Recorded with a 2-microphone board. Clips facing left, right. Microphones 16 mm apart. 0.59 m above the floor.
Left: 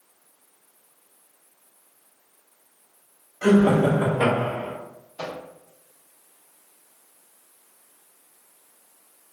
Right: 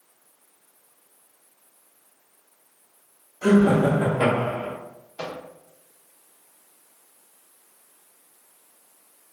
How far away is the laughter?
About 0.9 m.